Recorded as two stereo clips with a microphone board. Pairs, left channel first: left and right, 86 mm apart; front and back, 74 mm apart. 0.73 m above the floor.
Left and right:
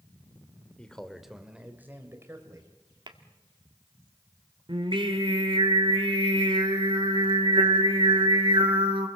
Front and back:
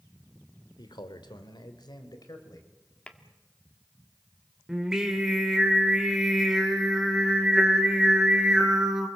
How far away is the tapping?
About 1.6 m.